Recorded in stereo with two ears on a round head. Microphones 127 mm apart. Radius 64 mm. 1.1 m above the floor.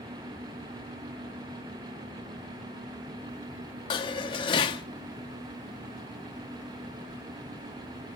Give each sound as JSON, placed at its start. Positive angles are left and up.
{"t": 3.9, "sound": "dishes clattering", "side_deg": 35, "distance_m": 0.7}